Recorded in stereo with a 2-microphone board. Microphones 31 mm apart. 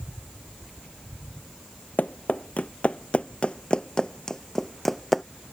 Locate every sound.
2.0 s running footsteps: 60° left (ahead or behind); by 5.2 s centre (ahead or behind)